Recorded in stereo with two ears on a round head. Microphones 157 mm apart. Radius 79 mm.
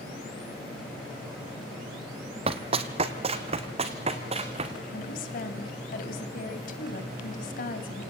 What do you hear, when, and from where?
2.5 s running footsteps: 35° right (ahead or behind), 1.2 m; by 4.7 s 40° right (ahead or behind), 3 m
4.9 s a woman speaking: 55° left (ahead or behind), 2.5 m